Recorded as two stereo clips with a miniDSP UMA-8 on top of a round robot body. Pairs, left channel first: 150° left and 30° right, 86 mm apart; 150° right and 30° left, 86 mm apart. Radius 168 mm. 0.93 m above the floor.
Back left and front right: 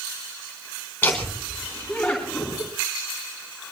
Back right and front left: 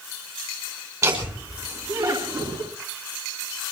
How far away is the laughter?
About 3.5 m.